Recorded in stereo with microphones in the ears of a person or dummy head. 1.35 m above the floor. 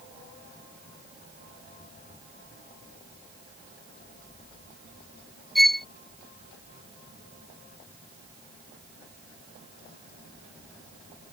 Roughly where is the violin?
Centre.